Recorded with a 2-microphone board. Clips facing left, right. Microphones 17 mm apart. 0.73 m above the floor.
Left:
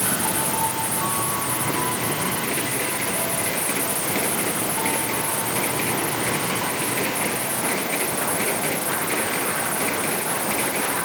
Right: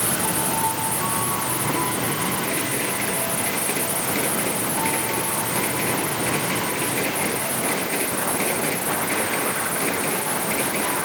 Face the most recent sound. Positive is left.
No sound to turn to.